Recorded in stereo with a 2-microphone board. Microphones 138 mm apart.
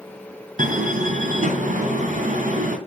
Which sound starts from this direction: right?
A door slam, at 0.6 s.